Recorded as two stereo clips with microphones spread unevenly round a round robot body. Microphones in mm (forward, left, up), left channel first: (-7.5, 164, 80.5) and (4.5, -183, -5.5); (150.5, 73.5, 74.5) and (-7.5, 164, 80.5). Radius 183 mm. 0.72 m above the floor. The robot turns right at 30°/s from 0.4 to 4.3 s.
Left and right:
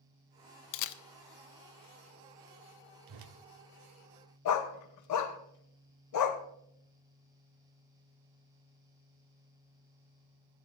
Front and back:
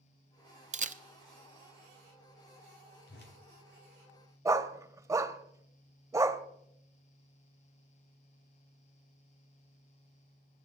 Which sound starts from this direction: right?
A whoosh, at 3.1 s.